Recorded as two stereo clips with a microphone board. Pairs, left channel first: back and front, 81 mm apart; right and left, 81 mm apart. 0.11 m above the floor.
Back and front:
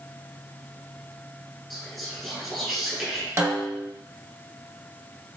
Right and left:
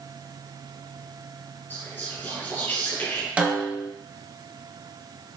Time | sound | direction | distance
1.7 | whispering | 90° right | 1.6 m
3.4 | a snare drum | 30° left | 1.0 m